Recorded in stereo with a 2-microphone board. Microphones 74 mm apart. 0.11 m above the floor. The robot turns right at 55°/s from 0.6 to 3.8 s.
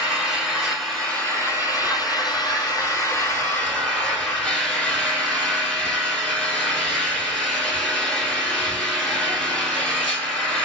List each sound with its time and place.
0.0 s an engine running: 5° right, 1.8 m; by 10.7 s 170° left, 1.8 m